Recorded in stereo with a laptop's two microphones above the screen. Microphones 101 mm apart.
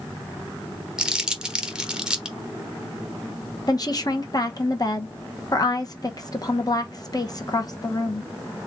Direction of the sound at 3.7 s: 40° left (ahead or behind).